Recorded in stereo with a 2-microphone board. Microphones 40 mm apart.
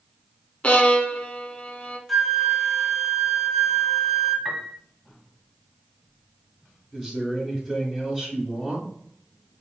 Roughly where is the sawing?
I don't hear sawing.